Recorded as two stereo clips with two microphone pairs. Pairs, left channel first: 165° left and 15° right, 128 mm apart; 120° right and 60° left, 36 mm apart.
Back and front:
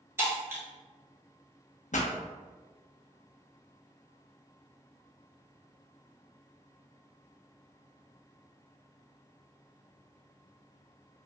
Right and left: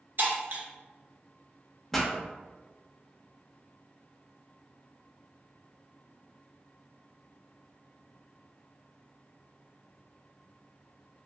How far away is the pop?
About 0.6 m.